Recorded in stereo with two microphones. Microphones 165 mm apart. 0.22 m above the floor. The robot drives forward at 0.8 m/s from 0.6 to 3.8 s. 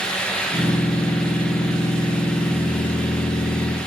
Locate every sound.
Only background noise.